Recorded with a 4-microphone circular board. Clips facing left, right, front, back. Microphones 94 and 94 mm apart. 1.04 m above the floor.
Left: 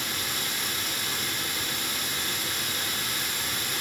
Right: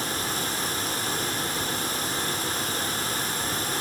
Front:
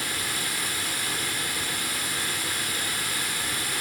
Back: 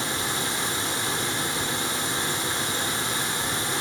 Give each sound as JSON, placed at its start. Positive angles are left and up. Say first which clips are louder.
{"t": 0.0, "sound": "running water", "louder": "right 5 dB, back 4 dB", "azimuth_deg": -125, "distance_m": 0.8}